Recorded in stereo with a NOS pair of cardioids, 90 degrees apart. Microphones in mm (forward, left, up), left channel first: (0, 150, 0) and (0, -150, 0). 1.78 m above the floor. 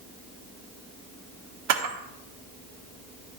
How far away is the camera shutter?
About 1.3 m.